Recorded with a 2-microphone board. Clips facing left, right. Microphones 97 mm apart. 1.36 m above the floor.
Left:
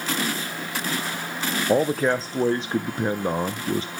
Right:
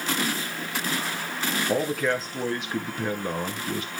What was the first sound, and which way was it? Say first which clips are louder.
A man speaking: left 5 dB; 30° left (ahead or behind).